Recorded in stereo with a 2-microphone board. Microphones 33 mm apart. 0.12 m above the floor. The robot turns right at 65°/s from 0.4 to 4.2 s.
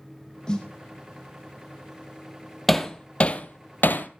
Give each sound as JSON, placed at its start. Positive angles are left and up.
{"t": 0.5, "sound": "a snare drum", "side_deg": 30, "distance_m": 3.5}
{"t": 2.7, "sound": "hammering", "side_deg": 0, "distance_m": 1.1}